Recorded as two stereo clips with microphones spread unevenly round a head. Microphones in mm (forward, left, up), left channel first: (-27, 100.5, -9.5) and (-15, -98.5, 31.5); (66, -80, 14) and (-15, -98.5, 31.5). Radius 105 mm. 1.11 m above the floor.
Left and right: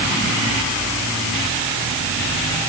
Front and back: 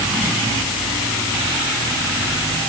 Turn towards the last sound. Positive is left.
No sound to turn to.